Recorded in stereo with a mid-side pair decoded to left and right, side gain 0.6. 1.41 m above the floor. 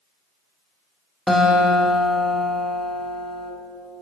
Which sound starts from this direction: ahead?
A guitar, at 1.3 s.